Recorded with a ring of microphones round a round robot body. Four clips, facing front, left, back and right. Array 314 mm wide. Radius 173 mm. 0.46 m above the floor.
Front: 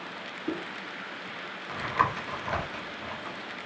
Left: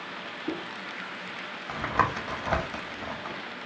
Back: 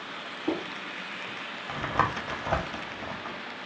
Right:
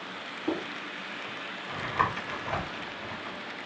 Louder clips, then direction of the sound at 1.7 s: Left 2 dB, even; 140° left.